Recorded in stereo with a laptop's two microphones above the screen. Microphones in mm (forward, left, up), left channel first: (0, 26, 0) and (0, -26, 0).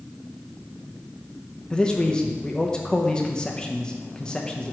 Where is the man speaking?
15° left (ahead or behind), 0.8 m.